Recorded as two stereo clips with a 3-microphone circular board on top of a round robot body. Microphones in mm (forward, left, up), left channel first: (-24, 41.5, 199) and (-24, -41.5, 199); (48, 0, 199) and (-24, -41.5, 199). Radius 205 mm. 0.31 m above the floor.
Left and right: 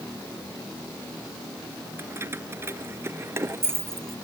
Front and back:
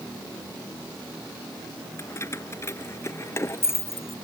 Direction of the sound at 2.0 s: 25° right.